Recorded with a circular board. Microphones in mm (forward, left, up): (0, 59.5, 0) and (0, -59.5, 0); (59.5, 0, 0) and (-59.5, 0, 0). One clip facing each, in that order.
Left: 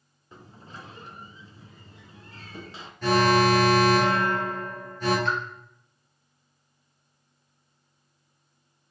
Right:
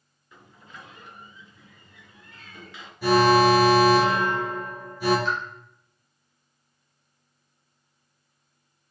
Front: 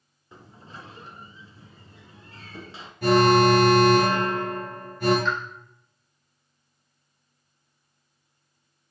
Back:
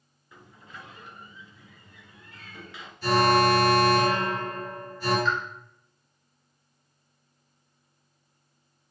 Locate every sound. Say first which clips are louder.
0.3 s a sliding door: left 3 dB, front 2 dB; 45° left, 0.7 m
3.0 s an alarm: right 3 dB, front 4 dB; 10° right, 3.5 m
5.2 s a pop: even, even; 95° left, 2 m